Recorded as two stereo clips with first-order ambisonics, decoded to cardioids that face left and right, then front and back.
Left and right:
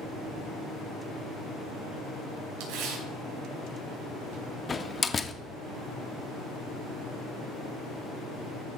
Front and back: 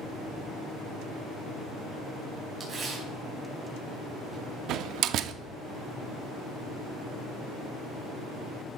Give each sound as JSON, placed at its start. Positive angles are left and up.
{"t": 2.6, "sound": "tearing paper", "azimuth_deg": -110, "distance_m": 4.5}
{"t": 4.7, "sound": "a door slam", "azimuth_deg": 160, "distance_m": 0.6}